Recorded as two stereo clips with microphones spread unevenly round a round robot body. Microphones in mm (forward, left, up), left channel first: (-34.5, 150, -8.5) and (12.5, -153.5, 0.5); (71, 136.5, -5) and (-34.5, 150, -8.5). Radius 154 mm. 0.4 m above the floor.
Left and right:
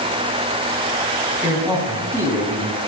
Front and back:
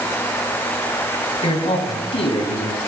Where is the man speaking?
Straight ahead, 4 m.